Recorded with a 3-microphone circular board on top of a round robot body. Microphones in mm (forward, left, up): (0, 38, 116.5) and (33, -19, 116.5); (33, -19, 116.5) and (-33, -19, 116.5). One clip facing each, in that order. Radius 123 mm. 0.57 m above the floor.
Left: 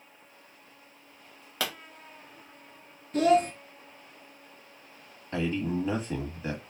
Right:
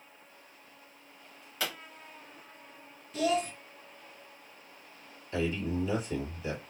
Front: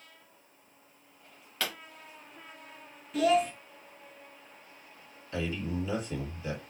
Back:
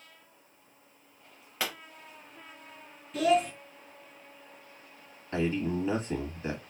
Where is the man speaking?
145° left, 1.5 m.